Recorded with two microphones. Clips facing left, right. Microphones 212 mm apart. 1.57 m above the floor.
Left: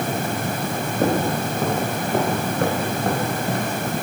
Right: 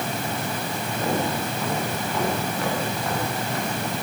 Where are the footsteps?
60° left (ahead or behind), 9 m; by 3.8 s 55° left (ahead or behind), 7.5 m.